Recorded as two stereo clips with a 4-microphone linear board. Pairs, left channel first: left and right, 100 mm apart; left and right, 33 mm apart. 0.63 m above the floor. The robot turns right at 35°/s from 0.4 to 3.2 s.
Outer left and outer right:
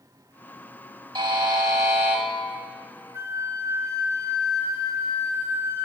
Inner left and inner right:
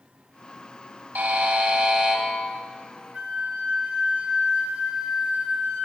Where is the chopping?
No chopping in this recording.